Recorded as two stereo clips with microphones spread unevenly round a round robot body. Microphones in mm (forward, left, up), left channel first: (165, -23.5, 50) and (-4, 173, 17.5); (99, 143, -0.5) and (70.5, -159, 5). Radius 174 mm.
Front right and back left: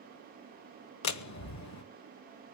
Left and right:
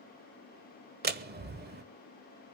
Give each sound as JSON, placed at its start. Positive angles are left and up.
{"t": 1.0, "sound": "a door slam", "azimuth_deg": -35, "distance_m": 1.5}